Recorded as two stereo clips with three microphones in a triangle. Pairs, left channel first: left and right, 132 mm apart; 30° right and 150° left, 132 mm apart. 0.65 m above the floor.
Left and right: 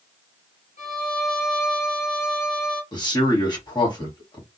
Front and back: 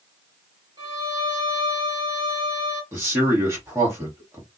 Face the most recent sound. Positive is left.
turn(degrees=100)